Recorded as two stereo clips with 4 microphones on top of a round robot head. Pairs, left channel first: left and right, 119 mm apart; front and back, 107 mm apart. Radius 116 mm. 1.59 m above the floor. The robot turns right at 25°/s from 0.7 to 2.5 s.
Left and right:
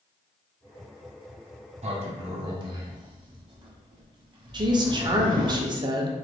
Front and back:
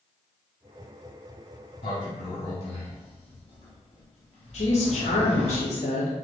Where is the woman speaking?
40° right, 0.5 m.